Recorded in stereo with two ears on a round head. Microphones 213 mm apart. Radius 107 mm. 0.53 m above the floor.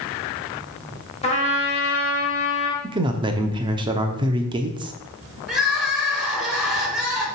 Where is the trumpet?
30° left (ahead or behind), 1.6 m.